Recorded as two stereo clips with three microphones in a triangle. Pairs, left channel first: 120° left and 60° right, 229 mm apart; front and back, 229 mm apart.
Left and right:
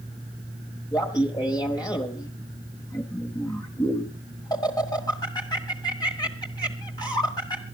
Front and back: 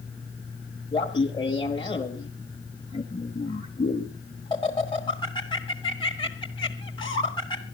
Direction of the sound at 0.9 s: 55° left.